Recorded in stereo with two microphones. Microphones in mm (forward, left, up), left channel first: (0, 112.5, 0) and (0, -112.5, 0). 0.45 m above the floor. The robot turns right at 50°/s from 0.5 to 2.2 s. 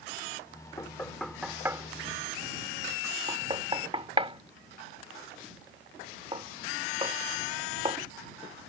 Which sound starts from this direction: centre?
Knocking, at 0.8 s.